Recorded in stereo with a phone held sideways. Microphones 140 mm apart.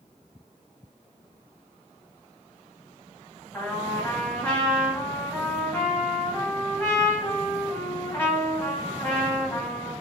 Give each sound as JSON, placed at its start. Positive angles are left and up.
{"t": 3.5, "sound": "a trumpet", "side_deg": 10, "distance_m": 1.4}